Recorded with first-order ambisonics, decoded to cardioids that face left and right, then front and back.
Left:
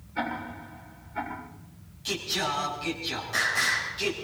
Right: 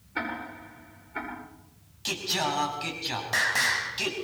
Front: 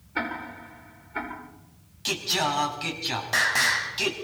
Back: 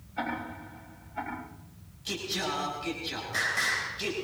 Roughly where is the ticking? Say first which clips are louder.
Left 1 dB, front 3 dB; ahead right.